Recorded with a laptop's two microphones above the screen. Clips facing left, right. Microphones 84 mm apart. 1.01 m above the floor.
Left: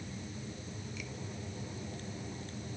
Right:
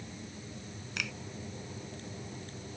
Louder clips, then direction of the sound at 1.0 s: Right 5 dB; 80° right.